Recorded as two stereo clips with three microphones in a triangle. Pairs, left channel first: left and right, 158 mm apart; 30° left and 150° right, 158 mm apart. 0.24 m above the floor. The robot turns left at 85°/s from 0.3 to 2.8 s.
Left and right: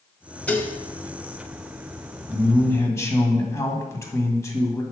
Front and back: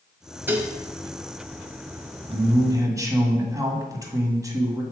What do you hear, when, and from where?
0.5 s dishes clattering: 160° left, 0.8 m; by 0.8 s 135° left, 0.8 m
2.3 s a man speaking: 165° right, 1.4 m; by 4.8 s 155° left, 1.4 m